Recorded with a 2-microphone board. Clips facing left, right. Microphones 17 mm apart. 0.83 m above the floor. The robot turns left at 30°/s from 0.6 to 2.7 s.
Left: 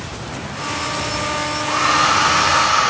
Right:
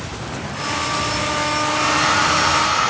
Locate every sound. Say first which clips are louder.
1.6 s a hair dryer: left 4 dB; 100° left, 4.5 m; by 2.9 s 70° left, 4.5 m